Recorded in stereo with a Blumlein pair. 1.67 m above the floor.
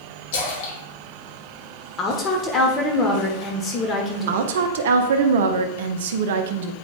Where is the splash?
55° left, 2.0 m.